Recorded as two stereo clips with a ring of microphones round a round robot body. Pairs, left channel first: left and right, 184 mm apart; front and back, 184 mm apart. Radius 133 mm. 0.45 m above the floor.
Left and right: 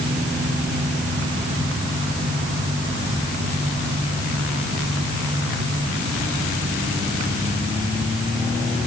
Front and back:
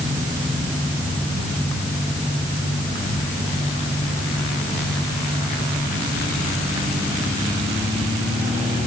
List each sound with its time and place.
Only background noise.